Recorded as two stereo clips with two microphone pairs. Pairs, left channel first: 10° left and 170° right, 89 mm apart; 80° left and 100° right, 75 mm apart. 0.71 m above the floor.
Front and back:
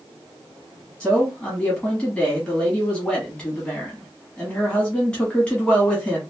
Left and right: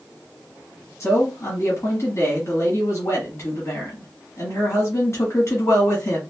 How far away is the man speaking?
About 1.3 m.